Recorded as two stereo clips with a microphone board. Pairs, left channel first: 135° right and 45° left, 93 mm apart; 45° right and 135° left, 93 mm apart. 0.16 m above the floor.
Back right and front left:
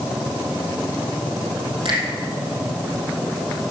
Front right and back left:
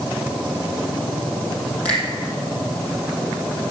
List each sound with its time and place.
1.9 s a finger snap: 30° left, 5.5 m